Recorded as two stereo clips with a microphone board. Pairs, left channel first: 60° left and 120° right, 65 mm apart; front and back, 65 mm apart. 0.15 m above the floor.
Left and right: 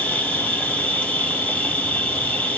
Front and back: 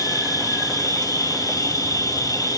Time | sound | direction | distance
0.0 | an insect | 5° right | 1.5 m